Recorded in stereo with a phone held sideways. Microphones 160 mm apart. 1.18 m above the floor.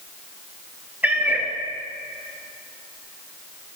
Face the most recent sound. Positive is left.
turn(degrees=-10)  # may be behind; listen again after turning